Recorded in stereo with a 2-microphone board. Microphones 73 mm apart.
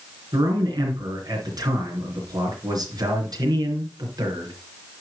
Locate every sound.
0.3 s a man speaking: 65° right (ahead or behind), 3.5 m